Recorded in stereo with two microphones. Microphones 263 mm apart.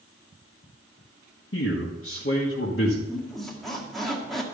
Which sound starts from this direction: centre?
A squeak, at 3.1 s.